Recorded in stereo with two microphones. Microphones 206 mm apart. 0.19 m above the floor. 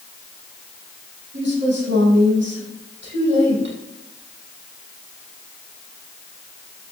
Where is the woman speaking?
60° right (ahead or behind), 6.5 m.